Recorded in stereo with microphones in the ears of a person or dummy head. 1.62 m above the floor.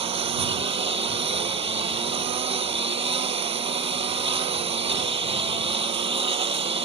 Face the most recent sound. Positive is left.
turn(degrees=-30)  # may be behind; listen again after turning